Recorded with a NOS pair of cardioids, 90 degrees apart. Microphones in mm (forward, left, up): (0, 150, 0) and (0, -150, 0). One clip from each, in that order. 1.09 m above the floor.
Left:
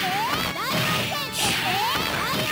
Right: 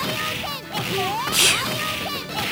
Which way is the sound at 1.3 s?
45° right.